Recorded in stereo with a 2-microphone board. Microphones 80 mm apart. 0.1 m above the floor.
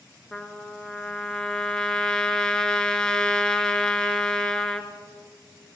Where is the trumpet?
10° left (ahead or behind), 0.9 m.